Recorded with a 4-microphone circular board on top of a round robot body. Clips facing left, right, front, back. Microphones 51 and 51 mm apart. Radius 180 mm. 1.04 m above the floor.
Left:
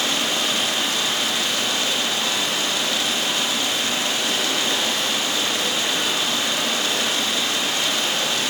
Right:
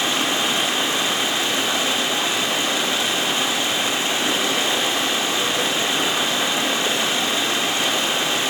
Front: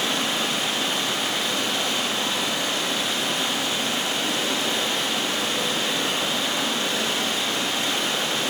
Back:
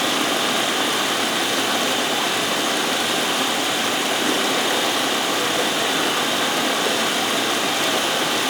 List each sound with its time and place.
0.0 s running water: 160° right, 2 m